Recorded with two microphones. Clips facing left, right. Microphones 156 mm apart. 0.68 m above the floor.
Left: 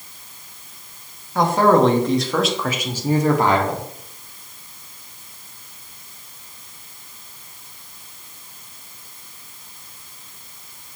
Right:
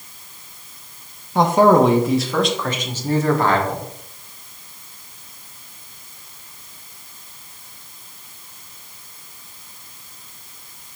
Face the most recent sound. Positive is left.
turn(degrees=20)  # may be behind; listen again after turning